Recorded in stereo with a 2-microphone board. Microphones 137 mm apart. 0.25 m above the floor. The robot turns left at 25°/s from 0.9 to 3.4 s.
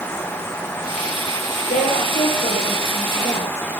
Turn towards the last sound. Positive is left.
turn(degrees=55)